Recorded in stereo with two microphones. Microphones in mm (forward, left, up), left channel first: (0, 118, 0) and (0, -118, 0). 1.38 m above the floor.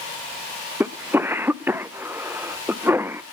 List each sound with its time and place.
0.8 s a cough: 10° right (ahead or behind), 0.8 m